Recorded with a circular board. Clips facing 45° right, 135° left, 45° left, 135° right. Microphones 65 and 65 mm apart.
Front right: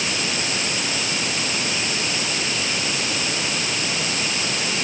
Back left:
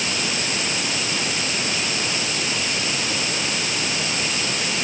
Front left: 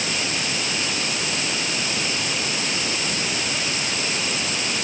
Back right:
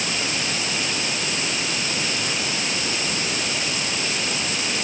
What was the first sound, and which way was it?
Only background noise.